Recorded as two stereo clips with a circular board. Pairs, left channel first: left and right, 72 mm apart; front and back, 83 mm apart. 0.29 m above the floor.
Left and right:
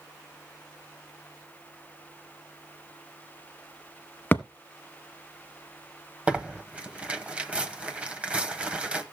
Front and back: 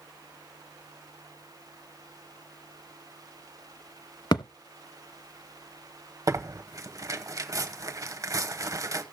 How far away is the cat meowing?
I don't hear a cat meowing.